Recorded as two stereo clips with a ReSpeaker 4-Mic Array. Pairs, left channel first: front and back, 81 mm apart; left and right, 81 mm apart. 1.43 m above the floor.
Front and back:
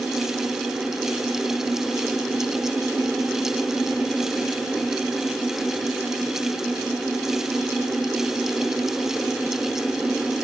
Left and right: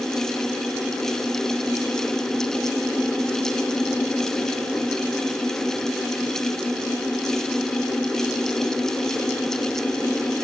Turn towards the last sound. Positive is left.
No sound to turn to.